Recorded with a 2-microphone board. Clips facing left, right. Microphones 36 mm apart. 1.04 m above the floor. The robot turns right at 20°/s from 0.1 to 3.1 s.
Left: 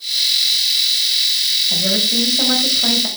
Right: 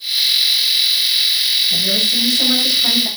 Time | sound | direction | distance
1.7 | a woman speaking | 70° left (ahead or behind) | 2 m